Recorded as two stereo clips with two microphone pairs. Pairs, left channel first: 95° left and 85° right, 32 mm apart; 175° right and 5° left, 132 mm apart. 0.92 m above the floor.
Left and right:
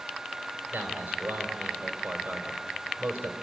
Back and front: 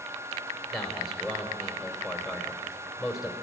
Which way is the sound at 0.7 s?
85° right.